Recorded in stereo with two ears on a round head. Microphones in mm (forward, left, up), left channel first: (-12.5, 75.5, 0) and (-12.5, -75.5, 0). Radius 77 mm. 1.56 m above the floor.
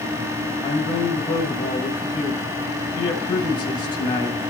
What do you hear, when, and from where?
0.6 s a man speaking: 25° left (ahead or behind), 2.5 m